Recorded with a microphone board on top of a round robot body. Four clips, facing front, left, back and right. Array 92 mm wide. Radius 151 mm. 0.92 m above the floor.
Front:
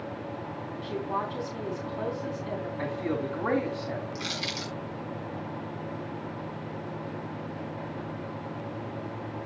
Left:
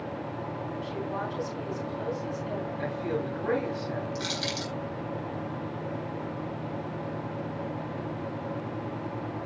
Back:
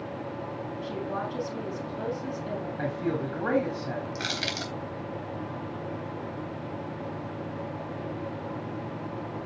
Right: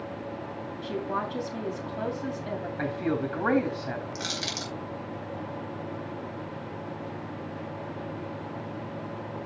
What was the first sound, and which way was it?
A woman speaking, 105° right.